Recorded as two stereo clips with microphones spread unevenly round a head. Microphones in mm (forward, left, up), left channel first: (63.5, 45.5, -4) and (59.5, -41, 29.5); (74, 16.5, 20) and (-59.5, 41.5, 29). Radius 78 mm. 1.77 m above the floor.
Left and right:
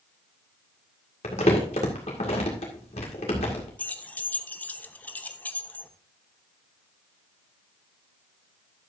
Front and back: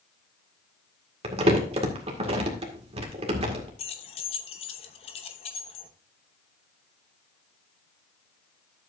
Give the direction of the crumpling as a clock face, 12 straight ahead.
8 o'clock.